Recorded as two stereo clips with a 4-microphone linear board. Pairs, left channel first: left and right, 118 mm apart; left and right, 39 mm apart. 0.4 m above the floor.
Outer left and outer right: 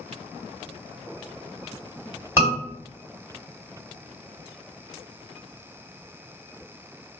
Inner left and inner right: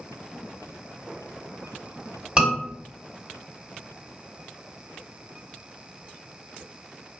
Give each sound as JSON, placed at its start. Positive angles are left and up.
{"t": 2.4, "sound": "a scream", "side_deg": -25, "distance_m": 2.0}